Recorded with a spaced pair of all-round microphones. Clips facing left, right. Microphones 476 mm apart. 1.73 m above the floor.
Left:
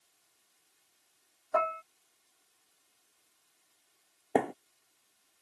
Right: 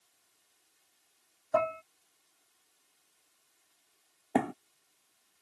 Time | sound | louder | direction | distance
1.5 | dishes clattering | right 2 dB | 55° right (ahead or behind) | ?
4.3 | a thud | left 1 dB | 25° right (ahead or behind) | ?